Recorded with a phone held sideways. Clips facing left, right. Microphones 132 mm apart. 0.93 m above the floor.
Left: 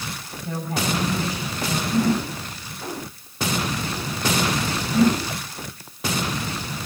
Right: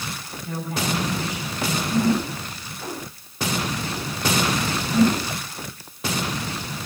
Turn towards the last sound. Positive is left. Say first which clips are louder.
# left 1 dB
turn(degrees=35)  # may be behind; listen again after turning